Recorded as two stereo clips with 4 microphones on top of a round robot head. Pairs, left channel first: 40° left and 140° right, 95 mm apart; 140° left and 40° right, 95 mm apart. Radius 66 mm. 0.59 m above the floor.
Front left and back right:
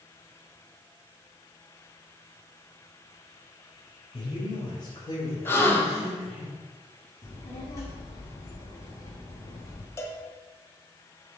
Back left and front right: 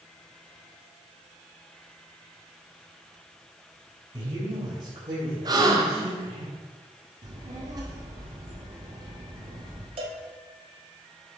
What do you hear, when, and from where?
4.1 s a man speaking: 15° left, 3 m; by 6.5 s 20° right, 3 m
5.5 s a gasp: 15° right, 1.4 m
7.2 s a child speaking: 5° right, 1.3 m
10.0 s a cowbell: 20° right, 1.3 m